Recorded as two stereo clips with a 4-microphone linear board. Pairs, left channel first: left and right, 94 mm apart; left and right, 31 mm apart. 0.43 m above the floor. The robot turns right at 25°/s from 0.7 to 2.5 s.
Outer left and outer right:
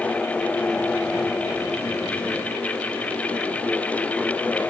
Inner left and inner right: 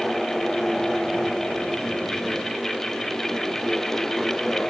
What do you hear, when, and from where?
Only background noise.